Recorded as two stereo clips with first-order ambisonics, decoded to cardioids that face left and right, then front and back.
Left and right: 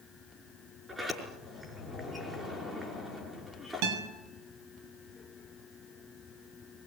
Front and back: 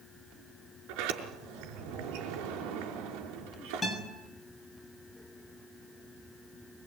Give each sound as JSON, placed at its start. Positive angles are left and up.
{"t": 0.9, "sound": "a sliding door", "azimuth_deg": -170, "distance_m": 5.5}
{"t": 3.8, "sound": "a guitar", "azimuth_deg": -80, "distance_m": 7.0}